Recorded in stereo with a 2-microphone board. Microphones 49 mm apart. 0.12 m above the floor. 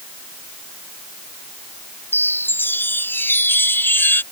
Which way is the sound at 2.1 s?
45° left (ahead or behind).